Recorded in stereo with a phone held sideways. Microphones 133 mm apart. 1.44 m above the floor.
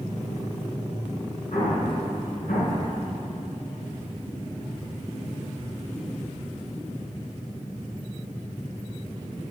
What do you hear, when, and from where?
1.5 s an explosion: 60° left (ahead or behind), 5.5 m